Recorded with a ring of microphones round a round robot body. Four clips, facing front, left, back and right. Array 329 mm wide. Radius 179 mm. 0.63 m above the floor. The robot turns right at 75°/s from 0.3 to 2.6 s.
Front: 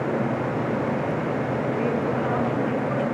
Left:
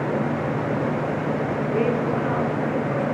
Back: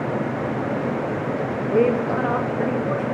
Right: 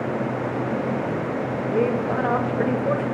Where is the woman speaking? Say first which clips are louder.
Right 1 dB, back 9 dB; 175° right, 3 m; by 3.0 s 105° right, 3 m.